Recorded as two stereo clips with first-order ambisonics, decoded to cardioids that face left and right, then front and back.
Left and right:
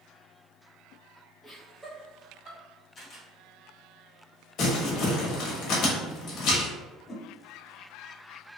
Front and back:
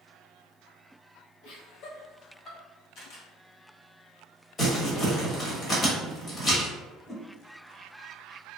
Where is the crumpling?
60° left, 1.3 m.